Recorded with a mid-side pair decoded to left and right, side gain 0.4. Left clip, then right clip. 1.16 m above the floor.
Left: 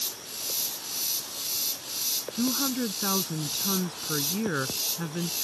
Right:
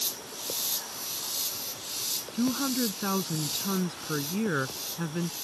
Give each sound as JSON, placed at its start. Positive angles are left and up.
{"t": 2.3, "sound": "a woman speaking", "azimuth_deg": -10}